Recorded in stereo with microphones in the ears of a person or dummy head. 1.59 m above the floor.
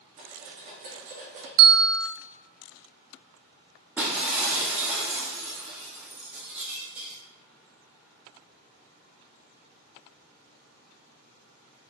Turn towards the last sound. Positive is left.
turn(degrees=0)  # may be behind; listen again after turning